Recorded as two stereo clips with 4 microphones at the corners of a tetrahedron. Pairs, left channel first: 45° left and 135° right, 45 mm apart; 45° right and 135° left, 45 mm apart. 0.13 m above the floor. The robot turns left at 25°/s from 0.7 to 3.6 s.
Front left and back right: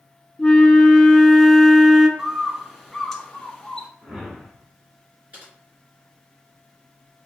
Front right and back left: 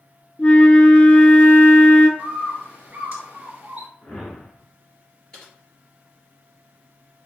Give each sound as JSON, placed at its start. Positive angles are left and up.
{"t": 0.4, "sound": "a flute", "azimuth_deg": -10, "distance_m": 0.7}
{"t": 2.2, "sound": "a bird", "azimuth_deg": 150, "distance_m": 1.0}
{"t": 4.0, "sound": "a whoosh", "azimuth_deg": -90, "distance_m": 1.7}
{"t": 5.3, "sound": "typing on a keyboard", "azimuth_deg": -110, "distance_m": 2.0}